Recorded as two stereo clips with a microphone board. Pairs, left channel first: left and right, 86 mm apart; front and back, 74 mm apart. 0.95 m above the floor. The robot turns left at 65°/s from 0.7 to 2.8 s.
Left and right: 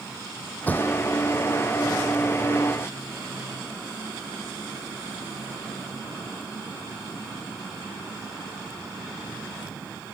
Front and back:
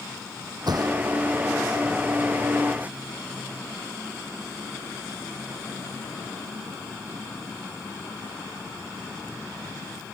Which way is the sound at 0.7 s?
160° left.